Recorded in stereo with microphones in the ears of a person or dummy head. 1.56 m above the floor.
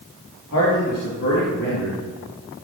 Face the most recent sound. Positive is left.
turn(degrees=75)  # may be behind; listen again after turning